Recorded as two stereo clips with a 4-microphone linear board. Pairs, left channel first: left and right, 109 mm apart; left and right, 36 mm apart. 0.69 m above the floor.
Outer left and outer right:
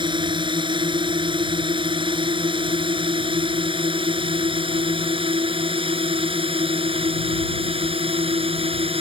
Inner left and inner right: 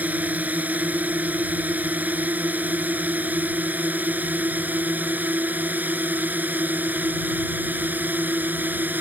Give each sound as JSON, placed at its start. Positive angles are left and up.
{"t": 0.0, "sound": "a drone", "side_deg": -50}